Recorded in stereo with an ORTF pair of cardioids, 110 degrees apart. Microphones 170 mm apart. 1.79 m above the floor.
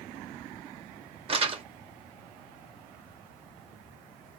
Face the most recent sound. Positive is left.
turn(degrees=-35)